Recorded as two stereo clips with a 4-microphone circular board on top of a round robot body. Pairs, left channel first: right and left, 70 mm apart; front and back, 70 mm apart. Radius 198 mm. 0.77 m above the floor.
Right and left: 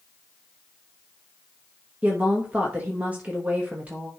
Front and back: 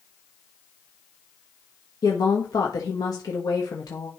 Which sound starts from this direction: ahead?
A woman speaking, at 2.0 s.